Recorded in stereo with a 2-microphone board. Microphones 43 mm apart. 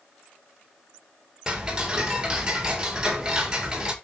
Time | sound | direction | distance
1.5 | ticking | 20° right (ahead or behind) | 1.6 m